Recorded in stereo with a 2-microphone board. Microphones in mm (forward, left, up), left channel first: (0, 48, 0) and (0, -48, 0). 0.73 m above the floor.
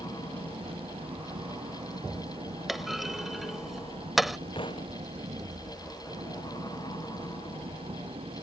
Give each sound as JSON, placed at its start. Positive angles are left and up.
{"t": 0.0, "sound": "an engine running", "side_deg": -75}
{"t": 2.7, "sound": "a clunk", "side_deg": 0}
{"t": 4.5, "sound": "a thud", "side_deg": 60}